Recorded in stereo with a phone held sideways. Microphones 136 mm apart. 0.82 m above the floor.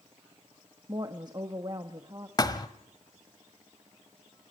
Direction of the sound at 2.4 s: 30° left (ahead or behind).